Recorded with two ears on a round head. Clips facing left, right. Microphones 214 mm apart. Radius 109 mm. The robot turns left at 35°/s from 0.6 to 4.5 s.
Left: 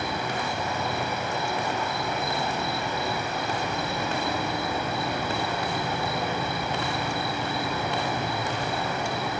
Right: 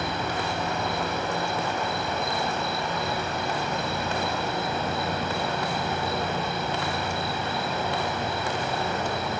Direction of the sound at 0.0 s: 125° right.